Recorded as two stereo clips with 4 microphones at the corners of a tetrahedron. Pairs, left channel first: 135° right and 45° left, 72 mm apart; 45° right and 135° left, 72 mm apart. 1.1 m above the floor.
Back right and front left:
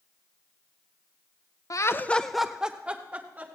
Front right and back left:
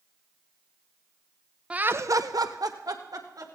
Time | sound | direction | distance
1.7 | laughter | 155° right | 0.6 m